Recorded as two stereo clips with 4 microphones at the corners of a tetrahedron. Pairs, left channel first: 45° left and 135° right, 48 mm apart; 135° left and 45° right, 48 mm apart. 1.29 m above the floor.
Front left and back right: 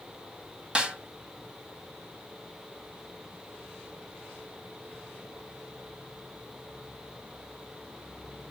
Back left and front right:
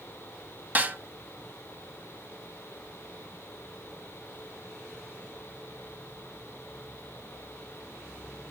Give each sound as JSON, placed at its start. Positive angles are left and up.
{"t": 0.8, "sound": "a snare drum", "azimuth_deg": -80, "distance_m": 1.4}